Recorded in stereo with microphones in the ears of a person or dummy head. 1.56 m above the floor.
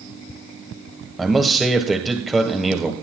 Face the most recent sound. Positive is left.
turn(degrees=0)  # may be behind; listen again after turning